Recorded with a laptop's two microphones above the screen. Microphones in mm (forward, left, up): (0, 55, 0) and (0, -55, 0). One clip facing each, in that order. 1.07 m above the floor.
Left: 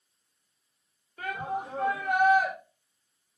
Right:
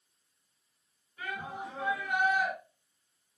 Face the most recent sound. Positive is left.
turn(degrees=60)  # may be behind; listen again after turning